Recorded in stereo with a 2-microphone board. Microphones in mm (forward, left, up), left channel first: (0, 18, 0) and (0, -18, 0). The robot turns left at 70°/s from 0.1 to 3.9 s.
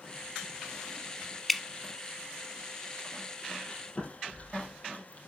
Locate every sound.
1.5 s dripping: centre (ahead or behind), 0.8 m; by 1.6 s 5° left (ahead or behind), 0.8 m
3.7 s chewing: 15° left (ahead or behind), 4 m; by 5.2 s 35° left (ahead or behind), 4 m